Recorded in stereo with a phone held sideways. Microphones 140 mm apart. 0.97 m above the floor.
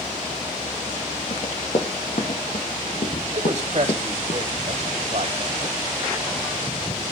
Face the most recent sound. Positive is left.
turn(degrees=-55)  # may be behind; listen again after turning